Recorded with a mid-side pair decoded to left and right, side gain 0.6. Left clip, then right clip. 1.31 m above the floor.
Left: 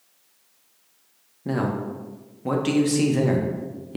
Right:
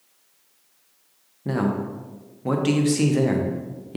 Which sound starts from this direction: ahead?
A man speaking, at 1.4 s.